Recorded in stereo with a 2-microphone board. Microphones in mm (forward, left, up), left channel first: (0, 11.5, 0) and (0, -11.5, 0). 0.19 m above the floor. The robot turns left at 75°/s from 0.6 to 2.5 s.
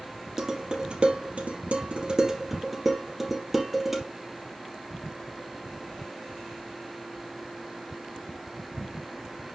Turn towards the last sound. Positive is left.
turn(degrees=-10)  # may be behind; listen again after turning